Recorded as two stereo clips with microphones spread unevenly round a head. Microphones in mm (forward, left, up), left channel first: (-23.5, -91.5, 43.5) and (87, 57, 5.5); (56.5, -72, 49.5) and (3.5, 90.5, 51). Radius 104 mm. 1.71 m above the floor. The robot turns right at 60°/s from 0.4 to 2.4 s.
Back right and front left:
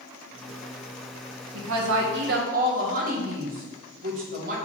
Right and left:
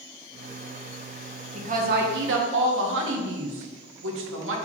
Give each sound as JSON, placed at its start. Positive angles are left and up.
{"t": 1.5, "sound": "a woman speaking", "azimuth_deg": 55, "distance_m": 1.2}